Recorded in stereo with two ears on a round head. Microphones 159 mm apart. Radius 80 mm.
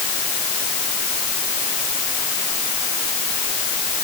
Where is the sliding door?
I don't hear a sliding door.